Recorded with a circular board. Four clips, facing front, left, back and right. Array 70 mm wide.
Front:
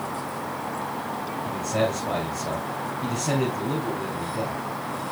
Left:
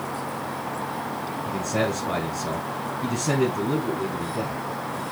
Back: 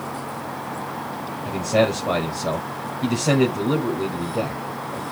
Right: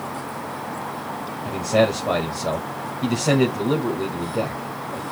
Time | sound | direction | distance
1.4 | a man speaking | 130° right | 2 m